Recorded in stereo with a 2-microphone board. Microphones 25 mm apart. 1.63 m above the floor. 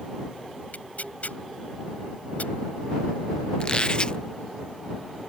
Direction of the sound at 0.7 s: 70° left (ahead or behind).